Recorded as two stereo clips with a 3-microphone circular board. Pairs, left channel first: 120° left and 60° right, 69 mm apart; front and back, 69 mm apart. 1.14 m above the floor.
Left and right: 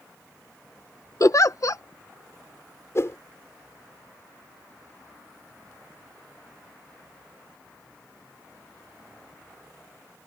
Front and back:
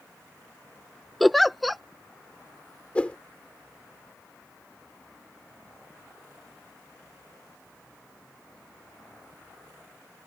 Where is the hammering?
No hammering in this recording.